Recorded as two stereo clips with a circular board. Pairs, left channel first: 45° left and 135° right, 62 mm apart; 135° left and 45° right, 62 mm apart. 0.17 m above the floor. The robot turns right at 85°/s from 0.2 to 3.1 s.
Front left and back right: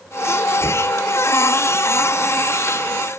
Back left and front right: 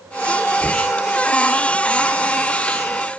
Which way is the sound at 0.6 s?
25° left.